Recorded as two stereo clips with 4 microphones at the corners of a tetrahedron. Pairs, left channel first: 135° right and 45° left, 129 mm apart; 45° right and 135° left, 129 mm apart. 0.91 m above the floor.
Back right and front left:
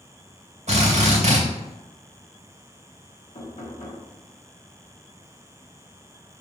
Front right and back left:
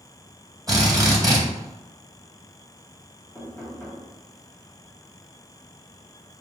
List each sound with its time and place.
0.7 s a drill: 70° left, 2.5 m
3.4 s knocking: 120° right, 2 m